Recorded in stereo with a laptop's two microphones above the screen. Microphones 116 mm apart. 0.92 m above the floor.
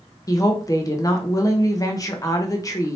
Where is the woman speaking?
30° left (ahead or behind), 0.7 m.